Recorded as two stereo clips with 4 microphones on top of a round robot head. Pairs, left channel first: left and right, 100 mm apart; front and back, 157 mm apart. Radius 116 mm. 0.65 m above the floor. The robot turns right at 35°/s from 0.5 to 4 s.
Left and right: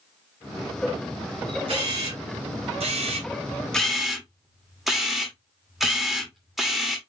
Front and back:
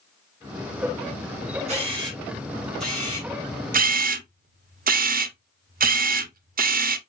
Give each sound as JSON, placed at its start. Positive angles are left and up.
{"t": 1.7, "sound": "a camera shutter", "azimuth_deg": -125, "distance_m": 3.0}
{"t": 3.7, "sound": "a camera shutter", "azimuth_deg": 175, "distance_m": 1.2}